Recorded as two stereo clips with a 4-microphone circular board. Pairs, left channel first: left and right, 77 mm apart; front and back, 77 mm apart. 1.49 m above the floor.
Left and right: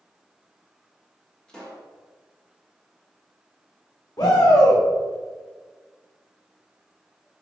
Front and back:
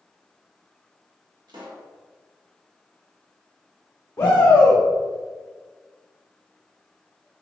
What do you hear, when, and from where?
1.5 s a pop: 165° left, 1.3 m
4.2 s a shout: 50° left, 1.0 m